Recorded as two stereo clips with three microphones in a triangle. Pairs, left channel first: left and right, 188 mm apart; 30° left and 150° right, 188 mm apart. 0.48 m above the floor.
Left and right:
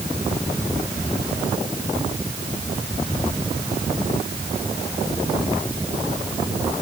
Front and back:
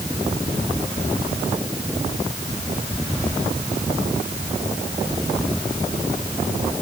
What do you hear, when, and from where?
Only background noise.